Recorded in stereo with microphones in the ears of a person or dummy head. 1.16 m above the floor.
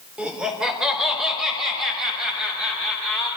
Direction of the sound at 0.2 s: 5° right (ahead or behind).